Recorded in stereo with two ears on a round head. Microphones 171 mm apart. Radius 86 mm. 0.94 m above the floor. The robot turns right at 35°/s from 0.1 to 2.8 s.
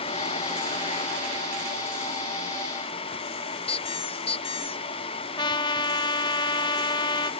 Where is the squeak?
30° left (ahead or behind).